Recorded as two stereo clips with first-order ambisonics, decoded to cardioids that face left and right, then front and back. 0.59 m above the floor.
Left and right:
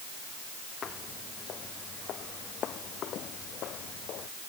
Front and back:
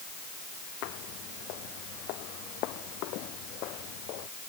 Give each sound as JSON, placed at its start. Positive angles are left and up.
{"t": 0.8, "sound": "footsteps", "azimuth_deg": 30}